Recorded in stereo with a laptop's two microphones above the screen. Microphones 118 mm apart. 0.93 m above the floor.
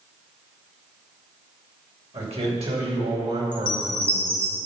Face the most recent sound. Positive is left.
turn(degrees=40)  # may be behind; listen again after turning